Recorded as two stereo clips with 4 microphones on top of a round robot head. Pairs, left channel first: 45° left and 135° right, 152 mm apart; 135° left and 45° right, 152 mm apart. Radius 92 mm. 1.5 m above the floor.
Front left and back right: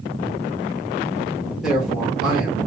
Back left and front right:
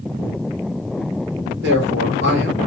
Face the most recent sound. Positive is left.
turn(degrees=-45)